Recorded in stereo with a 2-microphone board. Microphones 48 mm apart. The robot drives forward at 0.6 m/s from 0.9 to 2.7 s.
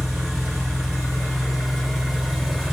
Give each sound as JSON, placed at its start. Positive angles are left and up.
{"t": 0.0, "sound": "an engine running", "side_deg": 0, "distance_m": 1.9}